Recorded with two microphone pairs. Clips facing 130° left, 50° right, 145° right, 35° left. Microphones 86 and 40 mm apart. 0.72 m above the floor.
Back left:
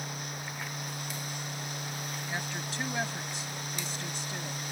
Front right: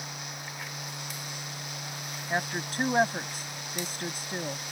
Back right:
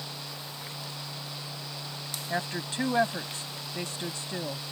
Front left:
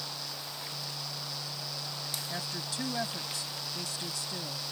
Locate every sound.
2.3 s a woman speaking: 95° right